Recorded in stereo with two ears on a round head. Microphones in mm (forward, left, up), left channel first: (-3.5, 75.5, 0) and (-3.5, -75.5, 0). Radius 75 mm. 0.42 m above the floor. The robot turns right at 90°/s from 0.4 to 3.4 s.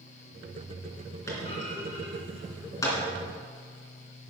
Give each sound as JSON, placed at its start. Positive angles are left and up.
{"t": 1.3, "sound": "a clunk", "side_deg": 15, "distance_m": 3.0}